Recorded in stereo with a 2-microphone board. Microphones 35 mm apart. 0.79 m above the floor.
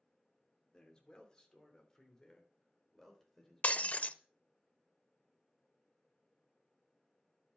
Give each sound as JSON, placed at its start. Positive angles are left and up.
{"t": 0.7, "sound": "a man speaking", "side_deg": 20, "distance_m": 3.0}
{"t": 3.6, "sound": "breaking glass", "side_deg": 40, "distance_m": 0.6}